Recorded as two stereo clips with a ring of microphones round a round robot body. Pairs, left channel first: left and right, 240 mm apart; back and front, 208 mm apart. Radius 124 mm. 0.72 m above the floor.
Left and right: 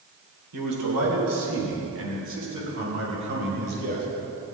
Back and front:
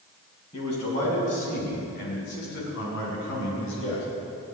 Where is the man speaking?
110° right, 4 m; by 4.0 s 140° right, 6.5 m.